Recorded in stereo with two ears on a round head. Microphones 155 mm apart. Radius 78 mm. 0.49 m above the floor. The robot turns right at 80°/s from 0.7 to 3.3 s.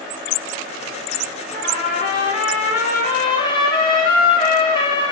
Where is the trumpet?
10° left, 2.5 m; by 5.1 s 150° left, 2.5 m.